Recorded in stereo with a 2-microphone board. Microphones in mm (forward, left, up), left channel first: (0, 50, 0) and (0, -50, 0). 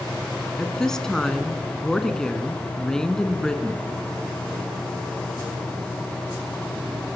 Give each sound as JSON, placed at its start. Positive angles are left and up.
{"t": 0.6, "sound": "a woman speaking", "side_deg": 5, "distance_m": 2.0}